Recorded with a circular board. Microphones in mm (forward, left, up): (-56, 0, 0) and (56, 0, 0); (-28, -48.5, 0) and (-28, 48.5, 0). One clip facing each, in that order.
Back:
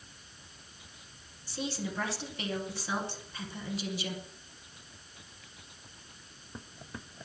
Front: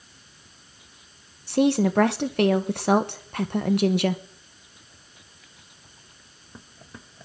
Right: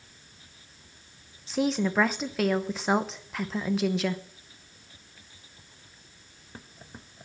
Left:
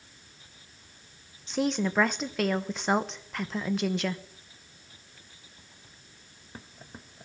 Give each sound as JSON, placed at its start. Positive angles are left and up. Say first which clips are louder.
{"t": 1.5, "sound": "a woman speaking", "louder": "front 17 dB, right 1 dB", "azimuth_deg": 0, "distance_m": 0.8}